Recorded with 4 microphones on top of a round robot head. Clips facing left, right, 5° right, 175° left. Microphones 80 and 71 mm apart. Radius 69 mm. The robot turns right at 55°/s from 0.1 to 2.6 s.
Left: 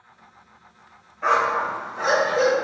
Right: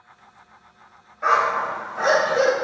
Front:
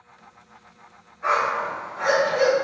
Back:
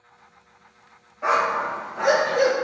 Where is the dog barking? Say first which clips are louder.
Right 1 dB, back 1 dB; 170° right, 1.5 m; by 2.5 s 95° right, 1.5 m.